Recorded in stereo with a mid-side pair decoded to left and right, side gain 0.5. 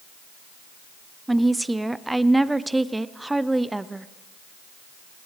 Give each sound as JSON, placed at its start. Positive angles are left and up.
{"t": 1.3, "sound": "a woman speaking", "azimuth_deg": -10, "distance_m": 0.6}